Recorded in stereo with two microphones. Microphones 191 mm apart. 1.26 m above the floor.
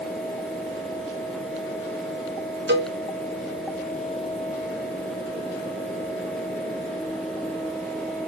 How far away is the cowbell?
About 0.6 m.